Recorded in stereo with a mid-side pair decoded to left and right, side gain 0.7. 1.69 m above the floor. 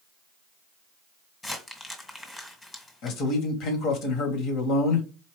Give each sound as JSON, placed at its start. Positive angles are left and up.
{"t": 1.4, "sound": "crumpling", "azimuth_deg": 15, "distance_m": 1.8}
{"t": 3.0, "sound": "a man speaking", "azimuth_deg": 60, "distance_m": 1.8}